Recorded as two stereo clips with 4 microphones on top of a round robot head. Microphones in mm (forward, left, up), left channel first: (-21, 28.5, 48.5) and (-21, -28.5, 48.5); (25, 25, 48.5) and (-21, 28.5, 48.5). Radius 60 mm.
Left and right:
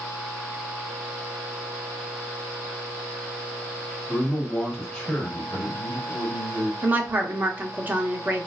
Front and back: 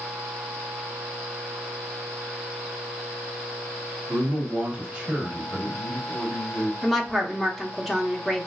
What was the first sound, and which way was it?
A man speaking, 175° left.